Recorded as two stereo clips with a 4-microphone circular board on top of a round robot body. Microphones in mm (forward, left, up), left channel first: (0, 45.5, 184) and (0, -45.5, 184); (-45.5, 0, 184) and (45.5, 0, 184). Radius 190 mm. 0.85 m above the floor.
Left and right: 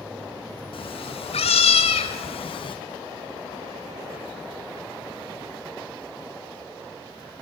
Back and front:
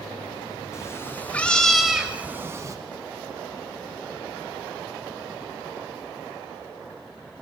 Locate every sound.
0.7 s a cat meowing: 120° left, 2.5 m; by 2.8 s 55° left, 2 m